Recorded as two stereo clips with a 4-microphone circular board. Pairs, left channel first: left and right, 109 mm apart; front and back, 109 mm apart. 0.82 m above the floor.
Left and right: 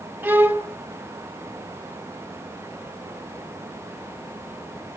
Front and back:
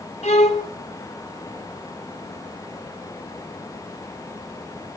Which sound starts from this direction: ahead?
A violin, at 0.2 s.